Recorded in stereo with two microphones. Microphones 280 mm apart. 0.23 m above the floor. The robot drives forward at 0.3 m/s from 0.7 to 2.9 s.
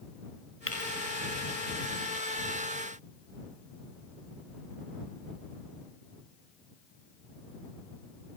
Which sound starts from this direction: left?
Breaking glass, at 0.7 s.